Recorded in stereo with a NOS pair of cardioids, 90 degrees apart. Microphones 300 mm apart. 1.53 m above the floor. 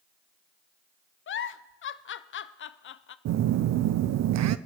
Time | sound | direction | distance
1.3 | a giggle | 40° left | 0.6 m
3.2 | a phone buzzing | 60° right | 0.6 m